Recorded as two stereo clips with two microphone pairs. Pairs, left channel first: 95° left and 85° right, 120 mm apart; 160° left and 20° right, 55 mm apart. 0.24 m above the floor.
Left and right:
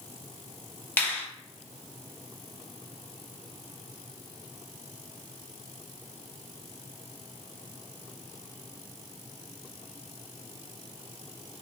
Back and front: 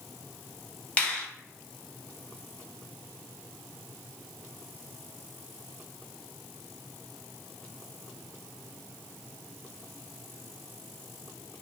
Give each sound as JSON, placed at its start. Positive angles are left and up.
{"t": 1.0, "sound": "a finger snap", "azimuth_deg": 140, "distance_m": 0.8}